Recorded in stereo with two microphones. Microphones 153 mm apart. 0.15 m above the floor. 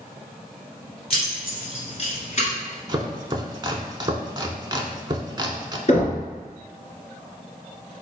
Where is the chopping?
30° right (ahead or behind), 0.5 m.